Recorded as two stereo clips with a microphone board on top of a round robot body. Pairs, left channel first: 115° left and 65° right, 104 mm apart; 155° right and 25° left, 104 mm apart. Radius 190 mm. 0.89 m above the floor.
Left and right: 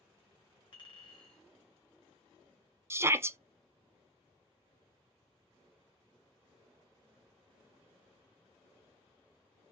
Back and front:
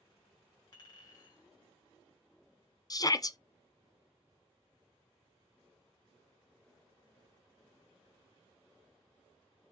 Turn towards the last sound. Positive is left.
turn(degrees=-125)